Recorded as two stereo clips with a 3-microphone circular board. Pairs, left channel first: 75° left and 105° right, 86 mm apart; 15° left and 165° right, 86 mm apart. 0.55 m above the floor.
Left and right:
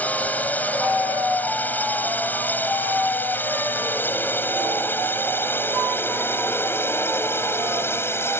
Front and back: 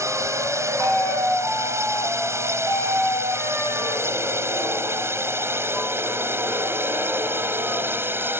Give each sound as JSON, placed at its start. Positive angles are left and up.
{"t": 0.0, "sound": "a drone", "azimuth_deg": 145}